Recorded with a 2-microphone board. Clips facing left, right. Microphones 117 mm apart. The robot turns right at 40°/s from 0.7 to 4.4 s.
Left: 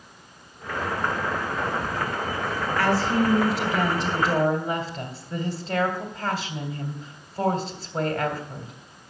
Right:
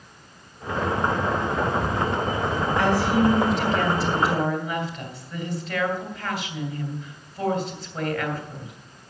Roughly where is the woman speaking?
Ahead.